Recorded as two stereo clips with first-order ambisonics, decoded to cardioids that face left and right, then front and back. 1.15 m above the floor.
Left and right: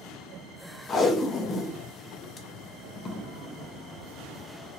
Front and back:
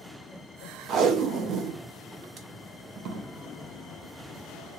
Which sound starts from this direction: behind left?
Tape being pulled, at 0.9 s.